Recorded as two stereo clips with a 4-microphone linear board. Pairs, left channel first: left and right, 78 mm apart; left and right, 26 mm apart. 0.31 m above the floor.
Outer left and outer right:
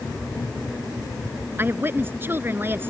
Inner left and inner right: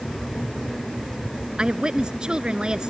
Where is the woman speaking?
30° right (ahead or behind).